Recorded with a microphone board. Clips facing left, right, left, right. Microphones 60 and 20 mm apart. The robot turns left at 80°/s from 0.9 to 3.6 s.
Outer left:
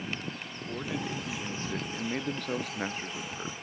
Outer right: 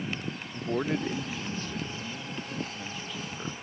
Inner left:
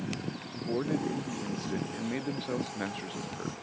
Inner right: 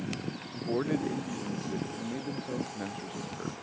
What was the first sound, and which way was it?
A man speaking, 150° right.